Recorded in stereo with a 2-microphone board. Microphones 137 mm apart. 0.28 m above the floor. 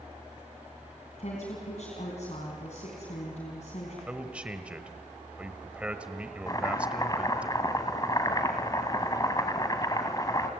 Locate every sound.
1.2 s a woman speaking: 60° left (ahead or behind), 3 m
4.1 s a man speaking: 10° right (ahead or behind), 1.1 m
6.5 s chopping: 30° left (ahead or behind), 1.2 m